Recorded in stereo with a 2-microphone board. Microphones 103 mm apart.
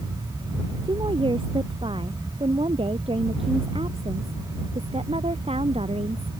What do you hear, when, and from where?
0.8 s a woman speaking: 55° right (ahead or behind); by 6.3 s 75° right (ahead or behind)